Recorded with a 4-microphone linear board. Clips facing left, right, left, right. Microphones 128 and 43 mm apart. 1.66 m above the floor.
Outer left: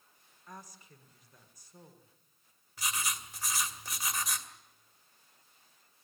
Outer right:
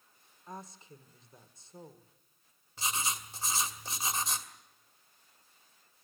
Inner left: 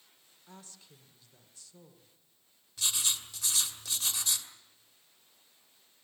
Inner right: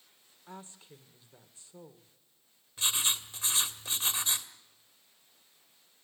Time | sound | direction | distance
0.5 | a woman speaking | 25° right (ahead or behind) | 1.6 m
2.8 | writing | 25° right (ahead or behind) | 1.9 m